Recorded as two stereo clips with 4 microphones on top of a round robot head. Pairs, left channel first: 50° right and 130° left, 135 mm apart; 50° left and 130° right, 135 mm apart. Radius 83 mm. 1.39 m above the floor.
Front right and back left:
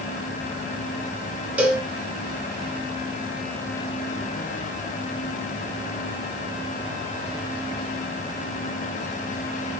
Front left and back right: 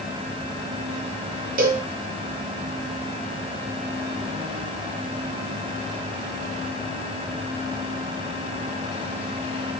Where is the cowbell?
150° right, 0.9 m.